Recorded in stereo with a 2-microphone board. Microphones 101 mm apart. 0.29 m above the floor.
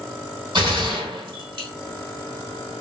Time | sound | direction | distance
0.6 | a gunshot | 50° right (ahead or behind) | 2 m